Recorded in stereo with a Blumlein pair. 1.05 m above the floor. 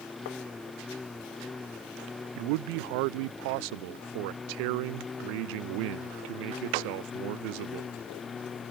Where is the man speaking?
45° right.